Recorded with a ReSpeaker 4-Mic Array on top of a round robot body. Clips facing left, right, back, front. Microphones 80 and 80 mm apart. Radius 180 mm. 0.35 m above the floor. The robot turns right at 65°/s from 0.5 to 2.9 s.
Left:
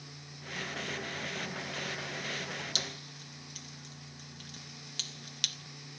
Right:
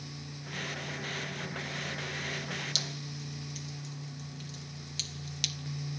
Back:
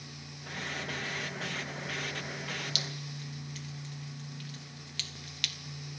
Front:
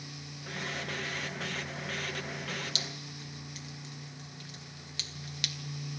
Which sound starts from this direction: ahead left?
Dripping, at 2.8 s.